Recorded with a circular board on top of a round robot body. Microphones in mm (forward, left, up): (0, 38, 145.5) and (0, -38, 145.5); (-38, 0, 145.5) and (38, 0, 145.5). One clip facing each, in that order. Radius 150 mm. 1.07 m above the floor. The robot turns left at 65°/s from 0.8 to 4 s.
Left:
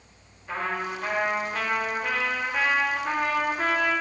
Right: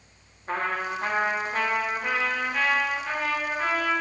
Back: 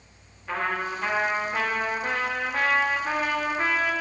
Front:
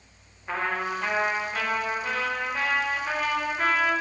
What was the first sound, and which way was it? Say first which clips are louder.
A trumpet: right 2 dB, even; 75° right.